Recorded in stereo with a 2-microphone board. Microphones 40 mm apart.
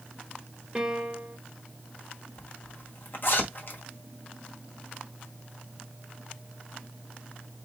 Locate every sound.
0.8 s a piano: 20° right (ahead or behind), 1.0 m
2.4 s a zipper: 60° left (ahead or behind), 1.4 m